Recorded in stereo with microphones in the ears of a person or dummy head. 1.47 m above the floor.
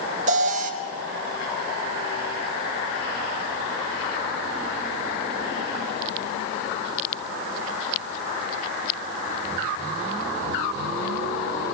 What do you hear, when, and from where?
0.3 s an alarm: 45° right (ahead or behind), 0.7 m